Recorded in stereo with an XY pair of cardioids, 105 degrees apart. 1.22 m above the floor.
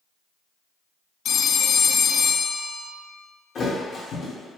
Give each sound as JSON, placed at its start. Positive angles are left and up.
{"t": 1.2, "sound": "a phone ringing", "azimuth_deg": 60, "distance_m": 0.5}
{"t": 3.5, "sound": "a thud", "azimuth_deg": 55, "distance_m": 1.6}